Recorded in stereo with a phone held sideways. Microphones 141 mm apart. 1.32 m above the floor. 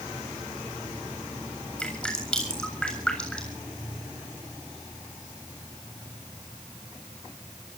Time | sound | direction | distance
1.8 | dripping | 5° left (ahead or behind) | 7.5 m